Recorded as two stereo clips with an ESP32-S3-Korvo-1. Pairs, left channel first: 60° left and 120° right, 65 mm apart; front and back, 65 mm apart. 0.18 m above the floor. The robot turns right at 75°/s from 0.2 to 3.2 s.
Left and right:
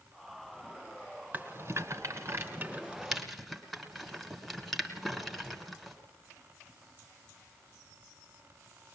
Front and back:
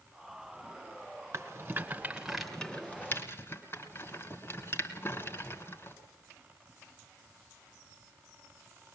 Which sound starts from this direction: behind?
A rattle, at 1.3 s.